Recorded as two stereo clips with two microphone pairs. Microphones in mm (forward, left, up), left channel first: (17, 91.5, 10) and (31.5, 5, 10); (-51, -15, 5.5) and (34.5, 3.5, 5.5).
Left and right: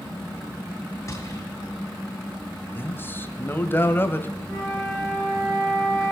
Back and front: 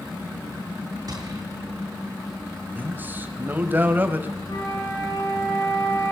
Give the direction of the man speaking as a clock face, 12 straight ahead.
10 o'clock.